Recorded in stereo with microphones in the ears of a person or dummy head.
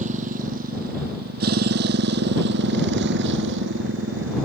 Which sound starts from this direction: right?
A motorcycle, at 0.0 s.